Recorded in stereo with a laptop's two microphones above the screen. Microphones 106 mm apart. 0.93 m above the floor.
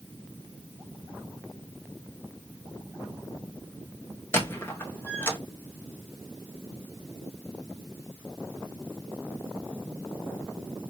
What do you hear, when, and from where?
4.3 s a squeak: 25° left (ahead or behind), 0.6 m